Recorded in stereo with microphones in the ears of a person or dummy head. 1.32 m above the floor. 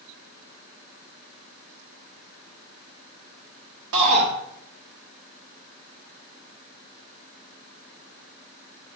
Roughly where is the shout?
Right.